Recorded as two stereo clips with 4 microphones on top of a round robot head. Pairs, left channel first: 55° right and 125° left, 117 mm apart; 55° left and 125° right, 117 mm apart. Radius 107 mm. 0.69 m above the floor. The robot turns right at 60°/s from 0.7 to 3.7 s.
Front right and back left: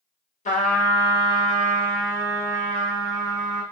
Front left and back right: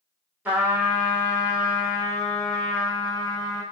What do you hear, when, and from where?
0.5 s a trumpet: 45° right, 1.5 m; by 3.6 s 130° left, 1.5 m